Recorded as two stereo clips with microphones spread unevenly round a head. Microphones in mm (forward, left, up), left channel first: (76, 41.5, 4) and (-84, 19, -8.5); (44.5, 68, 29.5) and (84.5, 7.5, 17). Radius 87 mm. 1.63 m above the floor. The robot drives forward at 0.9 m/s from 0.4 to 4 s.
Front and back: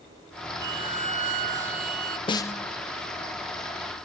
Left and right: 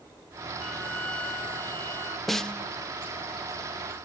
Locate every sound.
0.6 s a violin: 160° left; by 2.2 s 175° left
2.3 s a snare drum: 50° left; by 2.6 s 90° left